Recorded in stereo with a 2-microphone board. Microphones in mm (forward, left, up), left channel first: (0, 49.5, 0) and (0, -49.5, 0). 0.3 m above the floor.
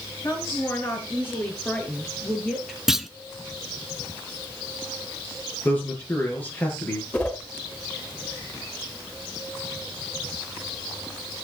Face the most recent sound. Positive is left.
turn(degrees=15)  # may be behind; listen again after turning